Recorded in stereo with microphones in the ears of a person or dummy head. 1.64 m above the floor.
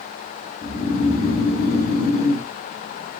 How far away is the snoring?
About 1.2 m.